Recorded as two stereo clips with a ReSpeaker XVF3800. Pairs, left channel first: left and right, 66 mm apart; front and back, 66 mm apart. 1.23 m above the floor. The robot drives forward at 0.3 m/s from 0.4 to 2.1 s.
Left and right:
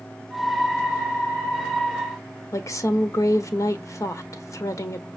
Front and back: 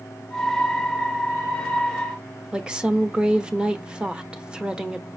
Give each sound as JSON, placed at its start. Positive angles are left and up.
{"t": 2.5, "sound": "a woman speaking", "azimuth_deg": 110, "distance_m": 0.9}